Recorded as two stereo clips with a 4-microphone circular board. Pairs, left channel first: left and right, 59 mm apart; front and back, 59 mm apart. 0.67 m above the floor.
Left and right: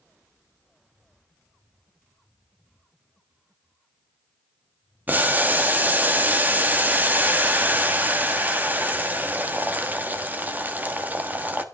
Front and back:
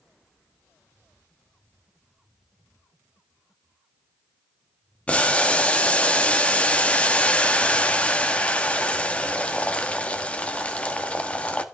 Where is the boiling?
55° right, 1.4 m.